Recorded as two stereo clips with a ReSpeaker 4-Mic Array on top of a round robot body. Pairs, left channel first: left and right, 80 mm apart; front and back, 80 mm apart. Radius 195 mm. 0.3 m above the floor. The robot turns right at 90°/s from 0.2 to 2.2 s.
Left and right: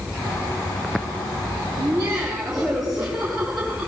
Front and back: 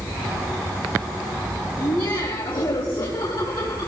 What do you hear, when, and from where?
1.8 s laughter: 45° right, 4.5 m; by 3.9 s 10° right, 4.5 m